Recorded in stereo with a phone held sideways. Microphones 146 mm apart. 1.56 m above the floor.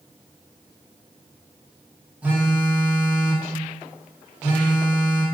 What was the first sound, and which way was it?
A phone buzzing, 10° right (ahead or behind).